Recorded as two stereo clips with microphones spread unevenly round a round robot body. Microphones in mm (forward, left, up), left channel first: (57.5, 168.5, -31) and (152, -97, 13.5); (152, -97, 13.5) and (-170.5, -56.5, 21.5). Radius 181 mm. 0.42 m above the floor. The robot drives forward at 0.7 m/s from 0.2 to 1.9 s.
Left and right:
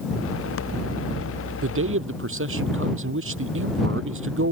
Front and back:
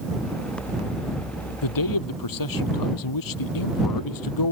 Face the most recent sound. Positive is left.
turn(degrees=-25)